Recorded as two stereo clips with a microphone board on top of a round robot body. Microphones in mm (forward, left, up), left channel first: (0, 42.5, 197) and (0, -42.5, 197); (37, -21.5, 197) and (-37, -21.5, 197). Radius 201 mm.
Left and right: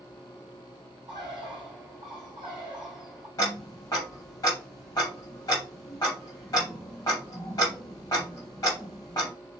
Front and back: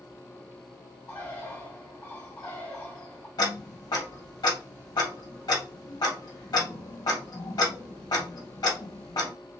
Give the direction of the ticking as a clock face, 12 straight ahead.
11 o'clock.